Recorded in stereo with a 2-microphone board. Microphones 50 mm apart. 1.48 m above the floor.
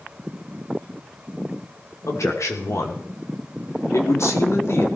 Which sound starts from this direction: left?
A man speaking, at 2.1 s.